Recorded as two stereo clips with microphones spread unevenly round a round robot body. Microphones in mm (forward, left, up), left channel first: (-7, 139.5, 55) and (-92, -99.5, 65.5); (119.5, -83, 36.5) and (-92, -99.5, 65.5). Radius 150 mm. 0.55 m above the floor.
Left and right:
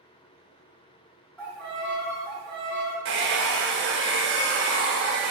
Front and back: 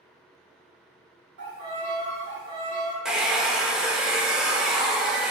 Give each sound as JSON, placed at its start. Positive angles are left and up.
{"t": 1.4, "sound": "a violin", "azimuth_deg": 155, "distance_m": 1.6}
{"t": 3.0, "sound": "a hair dryer", "azimuth_deg": -80, "distance_m": 0.6}